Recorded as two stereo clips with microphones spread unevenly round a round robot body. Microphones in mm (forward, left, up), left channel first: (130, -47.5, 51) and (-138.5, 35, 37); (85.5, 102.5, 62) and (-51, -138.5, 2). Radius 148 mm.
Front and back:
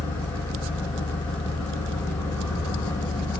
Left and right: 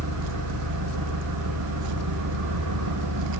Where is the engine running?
100° right, 6.5 m.